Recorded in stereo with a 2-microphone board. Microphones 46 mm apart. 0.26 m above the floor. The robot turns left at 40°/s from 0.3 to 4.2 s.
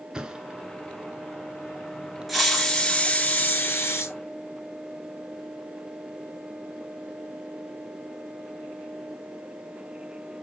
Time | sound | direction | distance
0.1 | a thud | 15° right (ahead or behind) | 1.2 m
2.3 | a hiss | straight behind | 2.5 m